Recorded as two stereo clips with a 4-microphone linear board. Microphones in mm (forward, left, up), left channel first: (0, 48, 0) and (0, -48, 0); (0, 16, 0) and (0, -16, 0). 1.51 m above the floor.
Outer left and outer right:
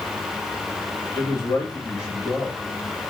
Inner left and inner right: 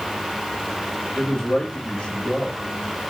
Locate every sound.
1.1 s a man speaking: 20° left (ahead or behind), 1.5 m